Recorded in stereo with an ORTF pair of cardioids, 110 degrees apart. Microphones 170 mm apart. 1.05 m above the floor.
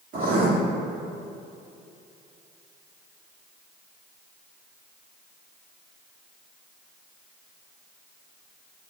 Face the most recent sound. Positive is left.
turn(degrees=-55)